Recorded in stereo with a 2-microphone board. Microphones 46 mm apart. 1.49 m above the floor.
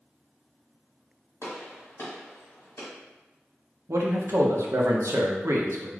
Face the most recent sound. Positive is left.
turn(degrees=-75)  # may be behind; listen again after turning